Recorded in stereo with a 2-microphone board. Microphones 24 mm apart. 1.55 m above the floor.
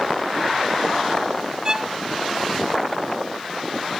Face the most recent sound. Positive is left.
turn(degrees=-30)  # may be behind; listen again after turning